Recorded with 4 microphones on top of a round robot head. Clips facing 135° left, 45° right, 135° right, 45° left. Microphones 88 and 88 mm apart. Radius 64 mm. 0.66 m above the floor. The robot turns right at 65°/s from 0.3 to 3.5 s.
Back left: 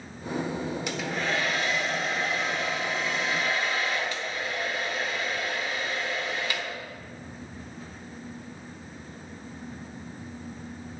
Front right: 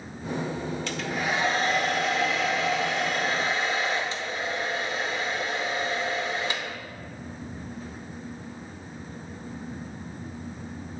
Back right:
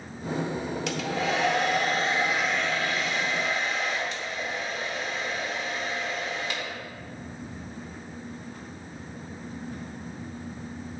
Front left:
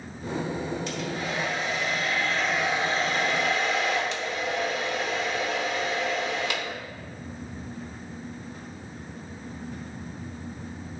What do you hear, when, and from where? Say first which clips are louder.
0.9 s a hair dryer: front right 2 dB, back right 3 dB; 150° right, 0.8 m; by 6.8 s 25° left, 0.8 m